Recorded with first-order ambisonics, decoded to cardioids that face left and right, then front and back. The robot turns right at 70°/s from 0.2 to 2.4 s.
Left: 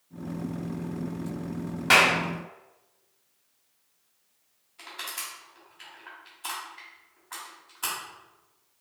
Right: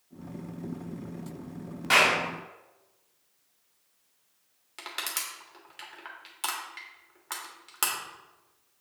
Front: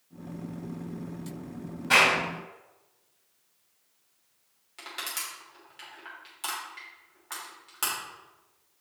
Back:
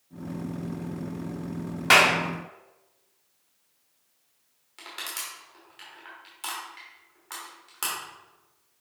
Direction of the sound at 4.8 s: 90° right.